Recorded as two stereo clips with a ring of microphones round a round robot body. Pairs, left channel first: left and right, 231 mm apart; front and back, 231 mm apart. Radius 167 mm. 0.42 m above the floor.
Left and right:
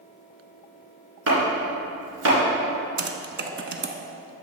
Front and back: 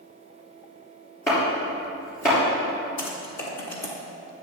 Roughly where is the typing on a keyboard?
Ahead right.